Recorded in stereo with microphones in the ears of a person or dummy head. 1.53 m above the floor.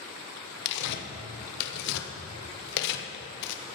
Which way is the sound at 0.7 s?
60° left (ahead or behind).